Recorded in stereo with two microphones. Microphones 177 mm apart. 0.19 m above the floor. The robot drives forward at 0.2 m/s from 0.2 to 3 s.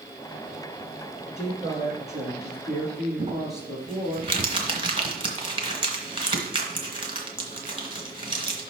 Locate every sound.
1.4 s a woman speaking: 5° right (ahead or behind), 3.5 m; by 4.2 s centre (ahead or behind), 4 m
3.2 s crumpling: 30° right (ahead or behind), 1.9 m